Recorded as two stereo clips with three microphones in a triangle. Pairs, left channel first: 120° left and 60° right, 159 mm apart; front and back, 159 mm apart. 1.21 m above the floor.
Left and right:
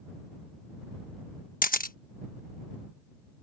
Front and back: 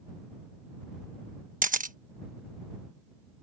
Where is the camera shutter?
150° left.